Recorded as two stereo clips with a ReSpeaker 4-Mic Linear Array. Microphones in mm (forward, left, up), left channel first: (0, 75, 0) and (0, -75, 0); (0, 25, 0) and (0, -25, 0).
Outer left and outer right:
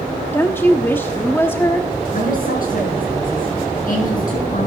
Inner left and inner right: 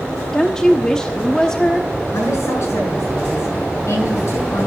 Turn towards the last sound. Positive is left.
turn(degrees=70)  # may be behind; listen again after turning